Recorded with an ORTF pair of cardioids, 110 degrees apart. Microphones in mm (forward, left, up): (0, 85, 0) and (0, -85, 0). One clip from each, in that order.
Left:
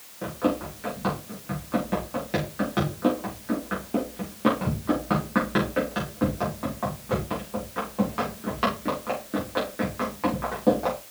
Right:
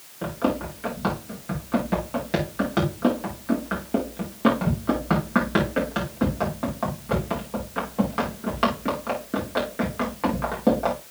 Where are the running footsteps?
20° right, 6 m.